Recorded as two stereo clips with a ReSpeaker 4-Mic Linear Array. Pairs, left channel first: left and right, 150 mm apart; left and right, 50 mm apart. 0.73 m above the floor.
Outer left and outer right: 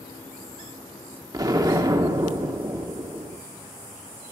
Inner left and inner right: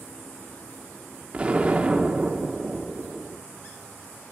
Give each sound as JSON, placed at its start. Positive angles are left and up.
{"t": 1.3, "sound": "an explosion", "side_deg": -25, "distance_m": 1.2}